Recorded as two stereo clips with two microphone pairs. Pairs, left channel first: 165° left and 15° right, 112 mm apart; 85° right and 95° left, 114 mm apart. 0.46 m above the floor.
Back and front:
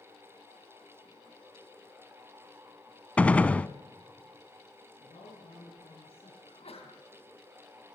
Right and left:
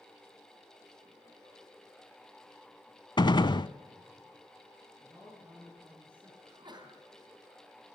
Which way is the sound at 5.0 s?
155° left.